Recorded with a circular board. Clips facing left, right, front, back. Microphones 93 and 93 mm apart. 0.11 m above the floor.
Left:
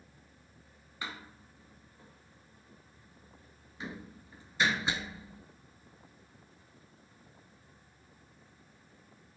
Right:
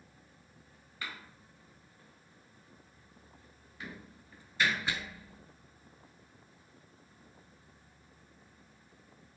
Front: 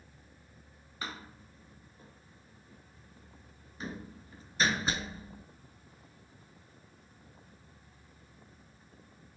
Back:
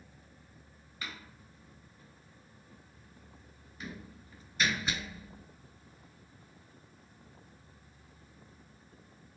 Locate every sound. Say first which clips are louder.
1.0 s a door slam: left 2 dB, front 3 dB; 35° left, 1.3 m